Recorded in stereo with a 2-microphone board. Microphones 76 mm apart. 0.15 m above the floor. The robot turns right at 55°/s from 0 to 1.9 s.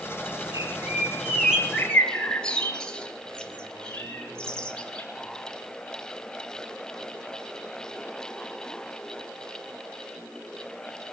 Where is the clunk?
No clunk in this recording.